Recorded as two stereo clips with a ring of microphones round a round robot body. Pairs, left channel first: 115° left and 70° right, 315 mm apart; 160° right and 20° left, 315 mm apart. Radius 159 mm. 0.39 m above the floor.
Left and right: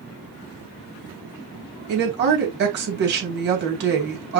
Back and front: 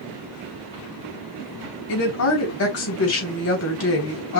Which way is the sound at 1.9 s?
120° right.